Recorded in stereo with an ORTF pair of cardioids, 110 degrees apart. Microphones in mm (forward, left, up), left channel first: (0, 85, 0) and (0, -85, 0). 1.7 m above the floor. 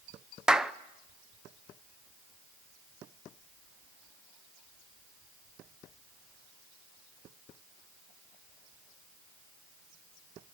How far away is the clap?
About 0.8 m.